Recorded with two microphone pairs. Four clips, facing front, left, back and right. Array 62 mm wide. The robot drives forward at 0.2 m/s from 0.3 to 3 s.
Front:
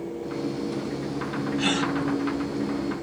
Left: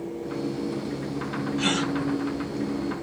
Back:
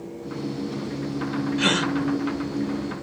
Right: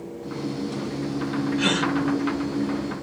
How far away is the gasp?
About 1.3 m.